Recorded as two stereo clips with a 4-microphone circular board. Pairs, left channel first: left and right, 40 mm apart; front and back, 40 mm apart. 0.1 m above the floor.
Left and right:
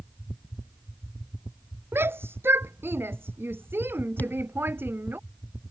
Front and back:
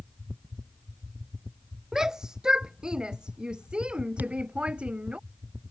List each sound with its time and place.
1.9 s a shout: 105° right; by 5.2 s 120° right
4.2 s a thud: 135° left